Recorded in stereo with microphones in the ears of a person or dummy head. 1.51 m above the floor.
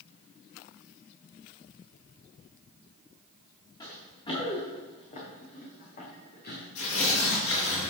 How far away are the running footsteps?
About 6 m.